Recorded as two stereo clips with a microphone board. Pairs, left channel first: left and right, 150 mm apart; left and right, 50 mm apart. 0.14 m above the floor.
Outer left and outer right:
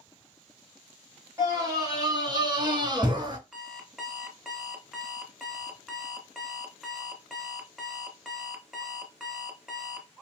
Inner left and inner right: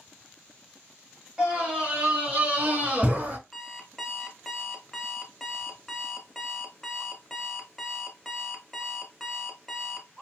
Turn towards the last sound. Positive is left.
turn(degrees=0)  # may be behind; listen again after turning